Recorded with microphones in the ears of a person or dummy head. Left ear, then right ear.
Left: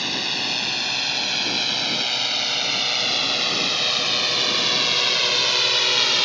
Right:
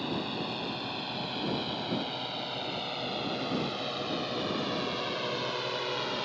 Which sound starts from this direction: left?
A drone, at 0.0 s.